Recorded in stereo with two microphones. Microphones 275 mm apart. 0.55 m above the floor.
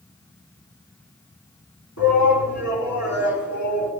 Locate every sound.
2.0 s a shout: 80° left, 5 m